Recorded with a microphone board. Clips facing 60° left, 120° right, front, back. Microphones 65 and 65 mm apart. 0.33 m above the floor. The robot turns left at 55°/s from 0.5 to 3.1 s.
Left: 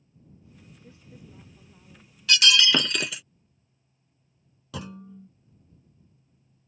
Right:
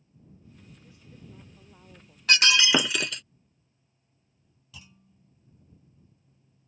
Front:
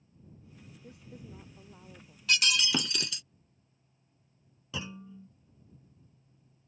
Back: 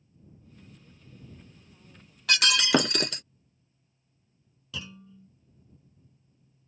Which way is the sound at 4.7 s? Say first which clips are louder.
Left 16 dB, front 2 dB; 65° left.